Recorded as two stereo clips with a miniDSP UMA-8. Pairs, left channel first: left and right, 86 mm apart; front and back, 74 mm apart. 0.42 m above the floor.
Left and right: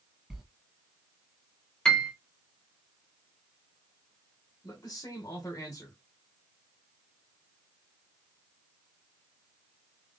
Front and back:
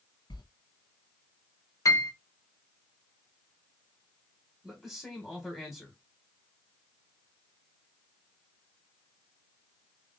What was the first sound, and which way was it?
A sliding door, straight ahead.